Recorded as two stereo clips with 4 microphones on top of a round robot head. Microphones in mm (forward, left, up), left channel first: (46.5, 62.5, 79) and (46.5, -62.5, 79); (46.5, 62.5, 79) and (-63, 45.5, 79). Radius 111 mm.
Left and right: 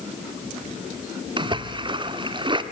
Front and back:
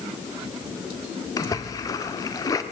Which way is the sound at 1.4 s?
45° right.